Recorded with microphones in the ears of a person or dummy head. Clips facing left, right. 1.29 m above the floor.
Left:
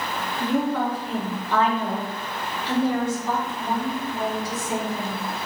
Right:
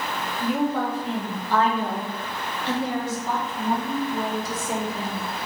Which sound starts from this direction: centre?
A woman speaking, at 0.4 s.